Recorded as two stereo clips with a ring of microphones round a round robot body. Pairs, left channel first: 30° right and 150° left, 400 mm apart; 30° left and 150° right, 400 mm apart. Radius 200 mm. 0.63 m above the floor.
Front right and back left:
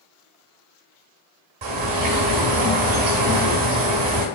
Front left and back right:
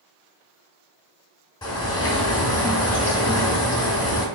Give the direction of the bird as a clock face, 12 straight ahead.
8 o'clock.